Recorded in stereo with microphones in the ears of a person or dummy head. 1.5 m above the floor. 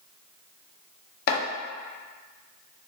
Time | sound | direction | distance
1.3 | chopping | 60° left (ahead or behind) | 0.6 m